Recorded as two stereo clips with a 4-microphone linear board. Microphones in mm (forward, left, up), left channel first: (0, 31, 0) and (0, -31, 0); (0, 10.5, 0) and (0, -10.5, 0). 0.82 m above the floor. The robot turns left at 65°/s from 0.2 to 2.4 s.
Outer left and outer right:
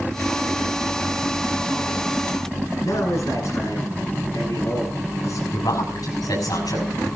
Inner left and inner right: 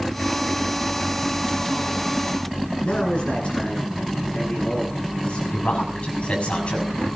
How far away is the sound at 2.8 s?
About 10 m.